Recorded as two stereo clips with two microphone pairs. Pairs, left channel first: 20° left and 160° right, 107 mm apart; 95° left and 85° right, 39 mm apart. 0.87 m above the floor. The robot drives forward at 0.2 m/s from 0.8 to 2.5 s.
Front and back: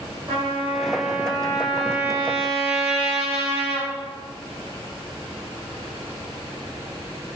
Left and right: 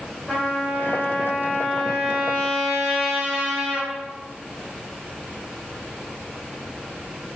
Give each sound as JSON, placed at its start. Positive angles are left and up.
{"t": 0.3, "sound": "a trumpet", "azimuth_deg": 180, "distance_m": 4.5}